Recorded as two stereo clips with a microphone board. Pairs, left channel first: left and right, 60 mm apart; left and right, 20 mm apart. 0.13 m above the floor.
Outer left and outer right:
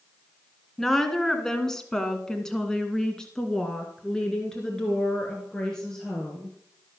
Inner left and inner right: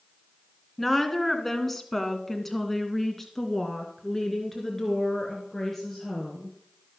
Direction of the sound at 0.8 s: 5° left (ahead or behind).